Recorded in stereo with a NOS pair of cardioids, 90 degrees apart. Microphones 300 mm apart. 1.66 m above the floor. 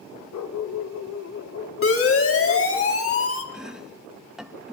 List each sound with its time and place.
0.3 s a dog barking: 70° left, 3 m; by 2.8 s 45° left, 4 m
1.8 s a siren: 45° left, 6 m
3.5 s chopping: 5° right, 2.5 m